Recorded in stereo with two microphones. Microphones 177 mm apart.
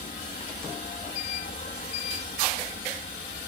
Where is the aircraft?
50° left (ahead or behind).